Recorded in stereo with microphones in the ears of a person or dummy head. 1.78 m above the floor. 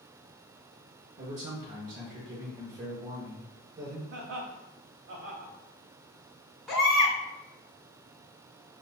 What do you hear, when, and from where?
1.2 s a man speaking: 45° right (ahead or behind), 1.1 m
4.1 s laughter: 65° right (ahead or behind), 0.9 m
6.7 s a baby crying: centre (ahead or behind), 1.9 m